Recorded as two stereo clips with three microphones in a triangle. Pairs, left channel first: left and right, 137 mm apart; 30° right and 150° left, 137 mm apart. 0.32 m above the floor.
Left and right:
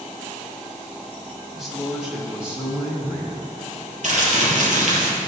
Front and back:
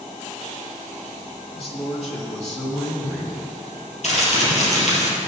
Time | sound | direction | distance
1.6 | a man speaking | straight ahead | 2.5 m
4.0 | crumpling | 65° right | 3 m